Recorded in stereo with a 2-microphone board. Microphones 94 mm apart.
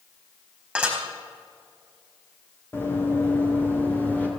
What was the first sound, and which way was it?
Dishes clattering, 10° right (ahead or behind).